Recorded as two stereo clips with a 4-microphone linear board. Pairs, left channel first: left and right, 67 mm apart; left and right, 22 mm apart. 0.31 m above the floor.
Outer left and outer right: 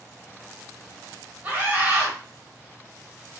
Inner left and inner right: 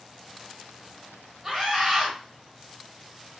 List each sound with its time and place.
1.4 s a scream: 25° right (ahead or behind), 1.1 m